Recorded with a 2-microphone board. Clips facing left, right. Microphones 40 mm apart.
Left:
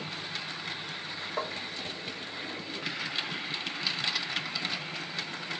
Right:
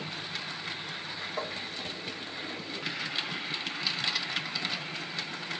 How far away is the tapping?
About 1.8 m.